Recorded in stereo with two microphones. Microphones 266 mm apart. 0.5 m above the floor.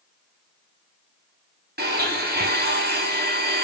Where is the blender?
40° right (ahead or behind), 0.8 m.